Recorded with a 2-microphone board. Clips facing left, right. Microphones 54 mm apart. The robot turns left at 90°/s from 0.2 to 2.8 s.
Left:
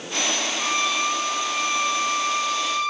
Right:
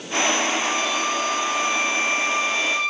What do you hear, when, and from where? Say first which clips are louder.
0.6 s a violin: even; 95° left, 1.2 m; by 2.9 s 105° right, 1.2 m